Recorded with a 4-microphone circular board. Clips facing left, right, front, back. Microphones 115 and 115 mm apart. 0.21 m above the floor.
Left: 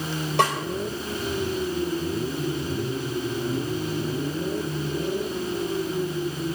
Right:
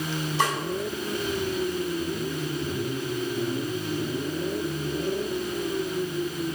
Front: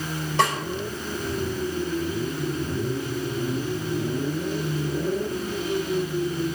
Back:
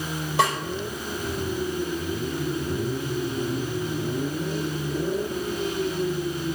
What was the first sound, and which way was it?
A snare drum, 95° left.